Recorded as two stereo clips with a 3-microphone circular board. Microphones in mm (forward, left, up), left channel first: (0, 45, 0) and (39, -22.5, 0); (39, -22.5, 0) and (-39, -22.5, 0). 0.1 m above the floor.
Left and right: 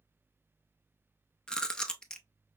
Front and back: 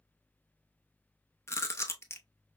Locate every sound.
1.5 s chewing: 45° left, 0.6 m